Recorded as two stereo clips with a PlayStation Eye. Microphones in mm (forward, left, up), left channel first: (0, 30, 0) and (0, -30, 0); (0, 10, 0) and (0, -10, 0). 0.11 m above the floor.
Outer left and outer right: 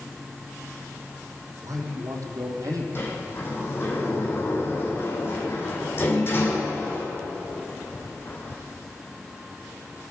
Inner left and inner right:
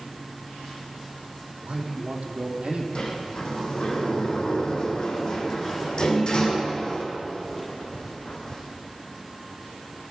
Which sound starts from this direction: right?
A man speaking, at 1.6 s.